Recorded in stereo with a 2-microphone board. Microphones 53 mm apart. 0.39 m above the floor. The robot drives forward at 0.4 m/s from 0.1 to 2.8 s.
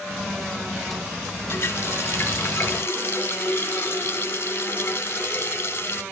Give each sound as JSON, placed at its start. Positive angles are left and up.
{"t": 1.5, "sound": "a running tap", "side_deg": 50, "distance_m": 1.9}